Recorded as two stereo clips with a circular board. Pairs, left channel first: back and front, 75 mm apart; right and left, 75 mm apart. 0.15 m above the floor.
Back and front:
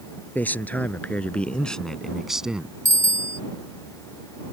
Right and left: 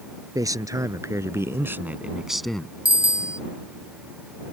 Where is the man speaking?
115° left; by 2.8 s 45° right.